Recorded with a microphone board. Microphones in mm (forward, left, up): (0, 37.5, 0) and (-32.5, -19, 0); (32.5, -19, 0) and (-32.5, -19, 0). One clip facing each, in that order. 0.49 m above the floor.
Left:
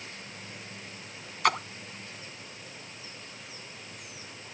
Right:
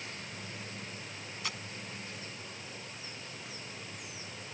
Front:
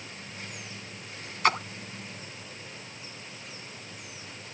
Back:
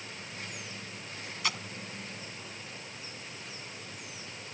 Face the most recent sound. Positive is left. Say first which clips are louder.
# left 17 dB, front 11 dB
turn(degrees=40)